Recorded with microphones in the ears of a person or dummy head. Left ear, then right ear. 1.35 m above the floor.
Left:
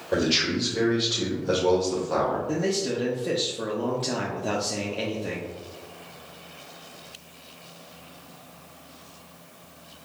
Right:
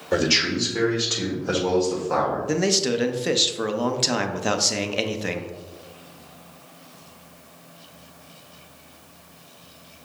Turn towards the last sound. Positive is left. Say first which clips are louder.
# right 5 dB
turn(degrees=-55)  # may be behind; listen again after turning